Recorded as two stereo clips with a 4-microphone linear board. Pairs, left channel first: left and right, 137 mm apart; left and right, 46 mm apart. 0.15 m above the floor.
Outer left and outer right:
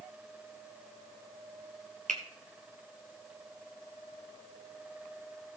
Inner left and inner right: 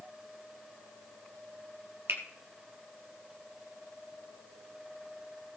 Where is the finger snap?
65° right (ahead or behind), 2.5 m.